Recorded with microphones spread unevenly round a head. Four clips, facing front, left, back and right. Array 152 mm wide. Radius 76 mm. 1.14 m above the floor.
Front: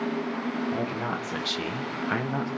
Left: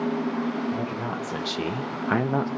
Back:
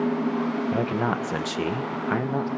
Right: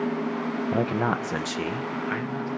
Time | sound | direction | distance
0.7 | a man speaking | 120° right | 1.1 m